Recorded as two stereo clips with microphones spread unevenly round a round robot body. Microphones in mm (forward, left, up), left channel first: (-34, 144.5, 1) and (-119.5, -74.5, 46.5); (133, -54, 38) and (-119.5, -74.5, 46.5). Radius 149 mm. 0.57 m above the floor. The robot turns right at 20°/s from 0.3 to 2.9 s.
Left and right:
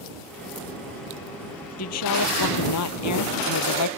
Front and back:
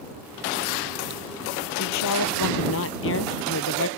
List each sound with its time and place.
1.8 s a woman speaking: 30° left; by 3.9 s 55° left